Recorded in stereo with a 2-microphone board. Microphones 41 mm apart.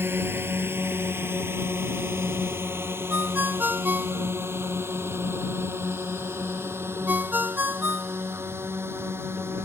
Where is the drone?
65° right (ahead or behind); by 9.7 s 80° right.